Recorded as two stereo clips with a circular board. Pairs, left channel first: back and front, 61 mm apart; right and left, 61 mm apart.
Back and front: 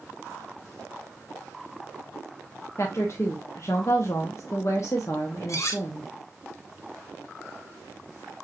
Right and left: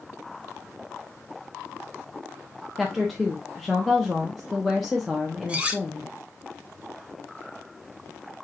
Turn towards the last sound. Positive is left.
turn(degrees=155)